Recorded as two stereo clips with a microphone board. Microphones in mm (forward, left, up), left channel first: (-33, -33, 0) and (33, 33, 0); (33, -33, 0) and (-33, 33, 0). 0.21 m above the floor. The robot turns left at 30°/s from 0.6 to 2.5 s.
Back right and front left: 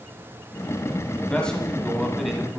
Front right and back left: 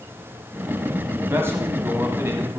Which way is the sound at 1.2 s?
165° left.